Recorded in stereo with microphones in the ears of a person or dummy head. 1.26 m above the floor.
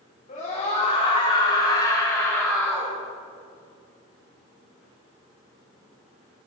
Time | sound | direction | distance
0.3 | a scream | 35° left (ahead or behind) | 4.5 m